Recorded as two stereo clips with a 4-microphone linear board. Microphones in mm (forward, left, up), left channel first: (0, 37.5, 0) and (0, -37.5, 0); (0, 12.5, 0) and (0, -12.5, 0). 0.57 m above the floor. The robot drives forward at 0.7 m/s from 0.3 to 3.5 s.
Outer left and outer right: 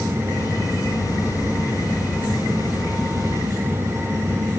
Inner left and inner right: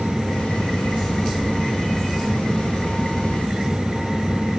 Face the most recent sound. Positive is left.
No sound to turn to.